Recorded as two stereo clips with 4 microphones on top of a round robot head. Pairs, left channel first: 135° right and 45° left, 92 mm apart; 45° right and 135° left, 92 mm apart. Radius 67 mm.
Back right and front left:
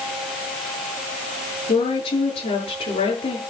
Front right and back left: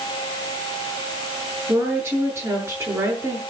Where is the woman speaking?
160° right, 8.5 m.